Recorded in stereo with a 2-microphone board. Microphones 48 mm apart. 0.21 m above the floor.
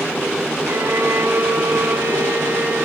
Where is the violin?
85° right, 5.5 m.